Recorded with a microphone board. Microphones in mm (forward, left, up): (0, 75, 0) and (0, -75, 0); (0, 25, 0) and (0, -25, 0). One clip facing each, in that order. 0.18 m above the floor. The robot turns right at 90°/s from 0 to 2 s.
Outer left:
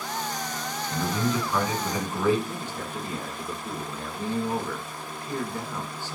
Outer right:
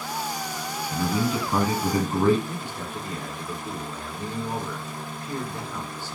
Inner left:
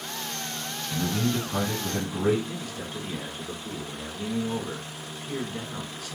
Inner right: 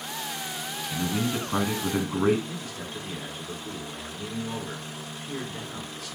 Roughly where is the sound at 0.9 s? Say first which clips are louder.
Outer right 2 dB, inner left 1 dB; behind.